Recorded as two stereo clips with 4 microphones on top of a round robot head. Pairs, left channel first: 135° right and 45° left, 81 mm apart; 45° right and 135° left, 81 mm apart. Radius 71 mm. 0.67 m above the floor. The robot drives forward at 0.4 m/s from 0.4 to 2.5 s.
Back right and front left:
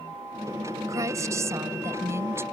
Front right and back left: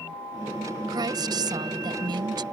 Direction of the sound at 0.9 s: 95° left.